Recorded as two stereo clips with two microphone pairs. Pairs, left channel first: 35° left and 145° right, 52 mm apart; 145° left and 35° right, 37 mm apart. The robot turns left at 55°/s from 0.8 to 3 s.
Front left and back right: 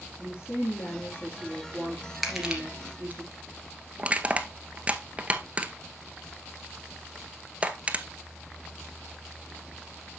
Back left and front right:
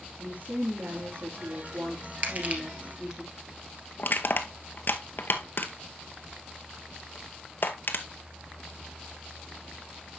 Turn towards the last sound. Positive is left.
turn(degrees=155)